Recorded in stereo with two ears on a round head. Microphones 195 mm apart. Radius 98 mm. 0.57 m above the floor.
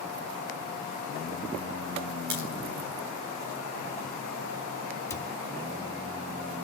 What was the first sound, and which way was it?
A crack, 45° right (ahead or behind).